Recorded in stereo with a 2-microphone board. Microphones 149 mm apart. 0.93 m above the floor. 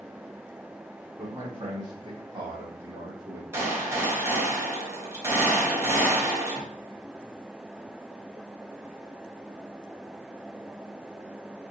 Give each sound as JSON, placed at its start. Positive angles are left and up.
{"t": 1.2, "sound": "a man speaking", "side_deg": -25, "distance_m": 1.1}
{"t": 3.5, "sound": "a gunshot", "side_deg": -20, "distance_m": 1.2}